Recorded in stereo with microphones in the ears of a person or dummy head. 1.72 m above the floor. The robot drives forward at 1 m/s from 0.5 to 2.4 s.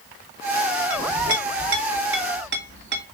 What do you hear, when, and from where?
0.9 s a clink: 40° right (ahead or behind), 2.5 m; by 3.0 s 60° right (ahead or behind), 2.0 m